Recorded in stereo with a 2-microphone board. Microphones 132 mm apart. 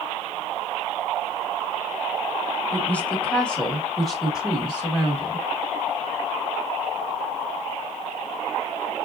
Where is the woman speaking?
15° left (ahead or behind), 1.4 m; by 5.5 s 10° right (ahead or behind), 1.7 m.